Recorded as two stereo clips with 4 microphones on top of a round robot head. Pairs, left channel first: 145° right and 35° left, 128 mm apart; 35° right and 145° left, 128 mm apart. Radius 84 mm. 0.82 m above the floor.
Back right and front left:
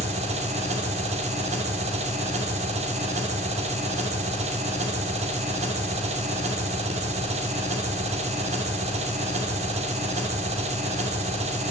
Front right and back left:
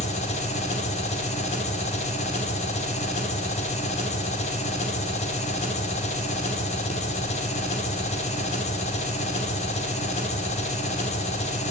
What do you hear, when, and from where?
0.0 s an engine running: straight ahead, 2.5 m